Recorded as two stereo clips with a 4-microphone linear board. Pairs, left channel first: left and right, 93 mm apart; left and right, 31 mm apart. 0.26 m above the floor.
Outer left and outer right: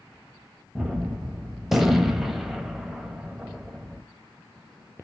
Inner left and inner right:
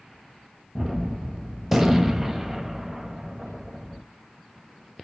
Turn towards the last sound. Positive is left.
turn(degrees=0)  # may be behind; listen again after turning